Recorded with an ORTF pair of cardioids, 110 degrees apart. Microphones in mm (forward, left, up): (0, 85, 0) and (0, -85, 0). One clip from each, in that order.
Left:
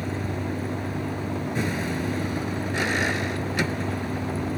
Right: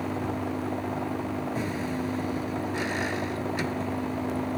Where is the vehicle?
45° left.